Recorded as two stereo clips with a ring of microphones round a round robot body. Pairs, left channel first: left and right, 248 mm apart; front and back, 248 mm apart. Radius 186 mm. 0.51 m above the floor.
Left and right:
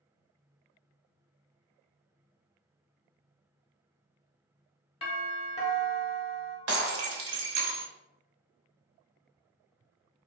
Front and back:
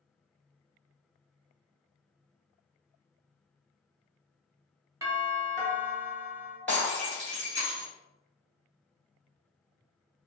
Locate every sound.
5.0 s a doorbell: 115° left, 1.2 m
6.7 s breaking glass: 85° right, 0.7 m